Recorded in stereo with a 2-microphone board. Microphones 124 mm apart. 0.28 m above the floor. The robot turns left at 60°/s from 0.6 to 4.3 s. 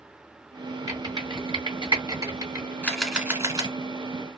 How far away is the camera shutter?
About 0.9 m.